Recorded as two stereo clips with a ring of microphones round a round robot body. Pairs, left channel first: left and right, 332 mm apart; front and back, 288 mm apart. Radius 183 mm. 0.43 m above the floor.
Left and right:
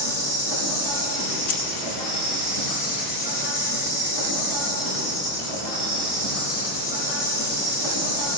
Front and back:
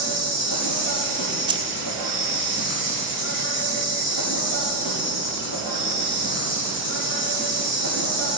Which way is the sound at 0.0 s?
50° left.